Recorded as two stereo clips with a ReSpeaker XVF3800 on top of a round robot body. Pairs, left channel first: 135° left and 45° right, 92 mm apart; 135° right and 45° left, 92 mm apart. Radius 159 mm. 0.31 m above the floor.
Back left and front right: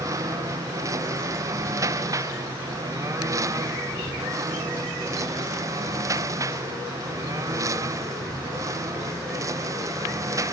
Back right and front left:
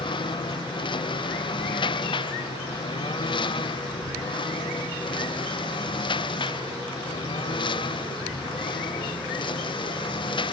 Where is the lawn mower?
100° right.